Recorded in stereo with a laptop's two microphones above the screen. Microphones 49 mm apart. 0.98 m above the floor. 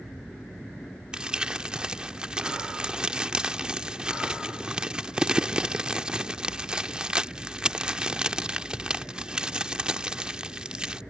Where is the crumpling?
20° right (ahead or behind).